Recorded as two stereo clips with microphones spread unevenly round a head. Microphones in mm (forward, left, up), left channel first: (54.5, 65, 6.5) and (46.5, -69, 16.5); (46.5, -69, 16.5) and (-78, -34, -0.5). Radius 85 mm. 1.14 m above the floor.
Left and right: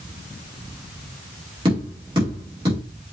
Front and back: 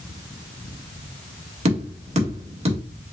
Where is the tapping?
160° right, 2 m.